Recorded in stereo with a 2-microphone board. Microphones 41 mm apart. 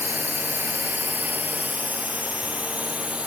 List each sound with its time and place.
0.0 s a drone: 60° right (ahead or behind); by 3.3 s 30° right (ahead or behind)